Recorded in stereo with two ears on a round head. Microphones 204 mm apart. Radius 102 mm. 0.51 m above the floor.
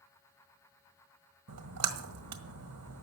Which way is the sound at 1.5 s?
75° right (ahead or behind).